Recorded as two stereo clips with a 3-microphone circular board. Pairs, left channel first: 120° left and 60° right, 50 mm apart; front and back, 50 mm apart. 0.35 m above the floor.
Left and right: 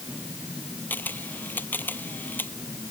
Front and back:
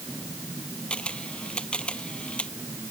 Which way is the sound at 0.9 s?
70° left.